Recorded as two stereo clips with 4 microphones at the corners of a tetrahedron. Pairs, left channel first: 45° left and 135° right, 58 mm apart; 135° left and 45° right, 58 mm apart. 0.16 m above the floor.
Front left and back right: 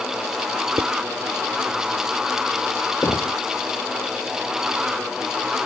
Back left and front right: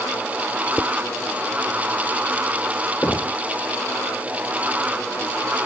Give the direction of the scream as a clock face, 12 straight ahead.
I don't hear a scream.